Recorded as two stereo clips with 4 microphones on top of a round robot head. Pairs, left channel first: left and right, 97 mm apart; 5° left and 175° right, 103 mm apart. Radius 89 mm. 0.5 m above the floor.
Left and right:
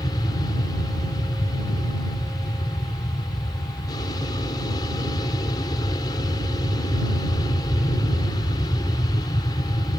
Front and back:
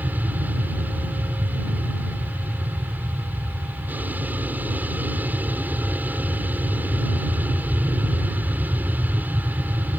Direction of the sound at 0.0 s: 115° left.